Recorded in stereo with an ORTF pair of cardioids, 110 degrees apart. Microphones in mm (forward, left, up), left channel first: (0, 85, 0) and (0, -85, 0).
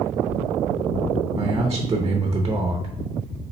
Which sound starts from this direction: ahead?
A man speaking, at 1.4 s.